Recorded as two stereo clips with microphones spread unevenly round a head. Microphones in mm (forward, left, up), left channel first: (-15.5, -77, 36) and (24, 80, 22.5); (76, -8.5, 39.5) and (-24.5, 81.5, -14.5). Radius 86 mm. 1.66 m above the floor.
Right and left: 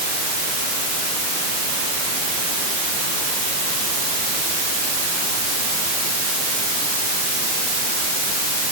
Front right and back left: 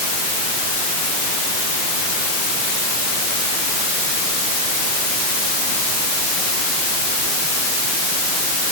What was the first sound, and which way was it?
Only background noise.